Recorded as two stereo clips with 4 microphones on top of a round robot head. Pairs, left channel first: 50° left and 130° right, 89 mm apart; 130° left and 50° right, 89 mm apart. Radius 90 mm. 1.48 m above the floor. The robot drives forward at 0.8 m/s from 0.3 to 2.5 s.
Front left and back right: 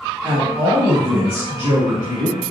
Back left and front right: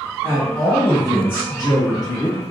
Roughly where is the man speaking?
Right.